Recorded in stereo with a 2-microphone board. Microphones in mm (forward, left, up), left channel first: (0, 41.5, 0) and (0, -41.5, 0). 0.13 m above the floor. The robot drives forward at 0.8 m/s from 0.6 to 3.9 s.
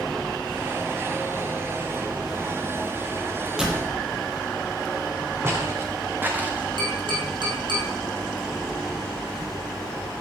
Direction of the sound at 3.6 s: 5° right (ahead or behind).